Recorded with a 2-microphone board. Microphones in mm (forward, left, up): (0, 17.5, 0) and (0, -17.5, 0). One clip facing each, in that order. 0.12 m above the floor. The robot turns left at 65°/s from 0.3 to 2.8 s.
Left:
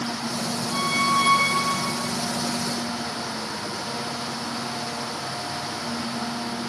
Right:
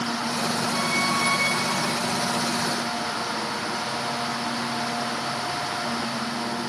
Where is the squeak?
155° left, 0.7 m; by 2.1 s 60° left, 0.7 m.